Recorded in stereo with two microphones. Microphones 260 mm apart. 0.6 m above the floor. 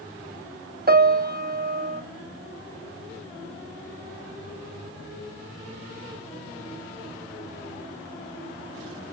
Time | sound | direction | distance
0.9 | a piano | 35° right (ahead or behind) | 0.5 m